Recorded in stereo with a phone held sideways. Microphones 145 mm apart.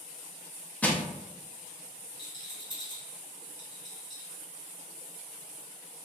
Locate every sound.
0.8 s crushing: 10° left (ahead or behind), 0.5 m
2.2 s a rattle: 30° left (ahead or behind), 1.0 m